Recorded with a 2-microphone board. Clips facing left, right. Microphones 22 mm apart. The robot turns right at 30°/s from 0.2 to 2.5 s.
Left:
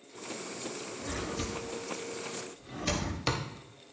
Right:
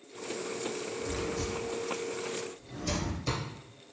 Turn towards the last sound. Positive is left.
turn(degrees=50)  # may be behind; listen again after turning